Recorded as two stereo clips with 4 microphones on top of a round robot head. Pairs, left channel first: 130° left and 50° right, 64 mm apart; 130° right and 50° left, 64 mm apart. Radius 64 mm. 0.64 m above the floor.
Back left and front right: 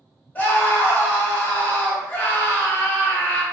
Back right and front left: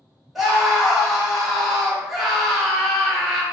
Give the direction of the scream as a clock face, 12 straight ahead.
8 o'clock.